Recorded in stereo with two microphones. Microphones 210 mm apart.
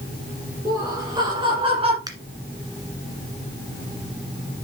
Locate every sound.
0.7 s laughter: 15° right (ahead or behind), 3 m; by 2.0 s 30° right (ahead or behind), 2.5 m
2.1 s a finger snap: 20° right (ahead or behind), 1.8 m